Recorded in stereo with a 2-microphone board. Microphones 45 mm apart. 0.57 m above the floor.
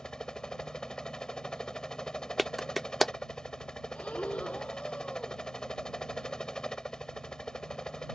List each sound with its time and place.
0.0 s a helicopter: 15° left (ahead or behind)
2.4 s a clap: centre (ahead or behind)
4.0 s breathing: 30° left (ahead or behind)